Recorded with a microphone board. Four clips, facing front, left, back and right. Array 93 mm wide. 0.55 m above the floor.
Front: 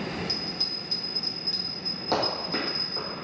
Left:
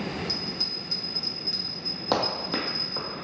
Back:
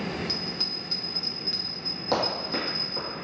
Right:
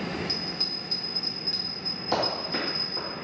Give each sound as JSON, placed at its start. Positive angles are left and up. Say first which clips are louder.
{"t": 0.3, "sound": "a bell", "louder": "even, back 1 dB", "azimuth_deg": 165, "distance_m": 0.6}
{"t": 2.1, "sound": "running footsteps", "louder": "left 1 dB, even", "azimuth_deg": 95, "distance_m": 1.1}